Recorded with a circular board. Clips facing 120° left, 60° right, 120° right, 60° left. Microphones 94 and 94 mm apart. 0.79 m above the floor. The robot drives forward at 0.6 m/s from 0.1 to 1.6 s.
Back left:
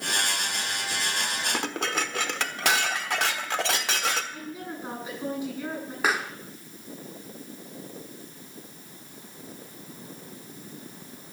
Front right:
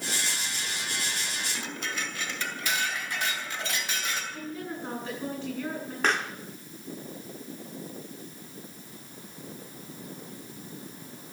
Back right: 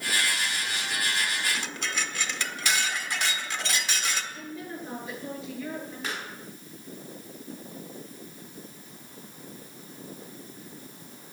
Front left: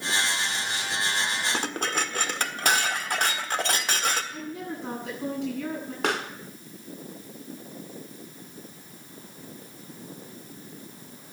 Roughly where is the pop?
Ahead left.